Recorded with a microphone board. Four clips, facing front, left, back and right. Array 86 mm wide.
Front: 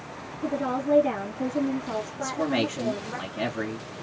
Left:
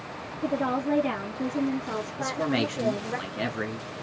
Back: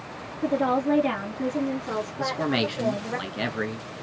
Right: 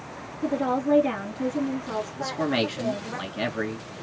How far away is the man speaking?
About 1.0 m.